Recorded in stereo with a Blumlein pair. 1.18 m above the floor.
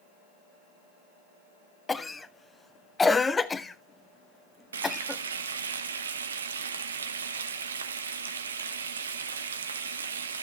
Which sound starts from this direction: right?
Frying, at 4.7 s.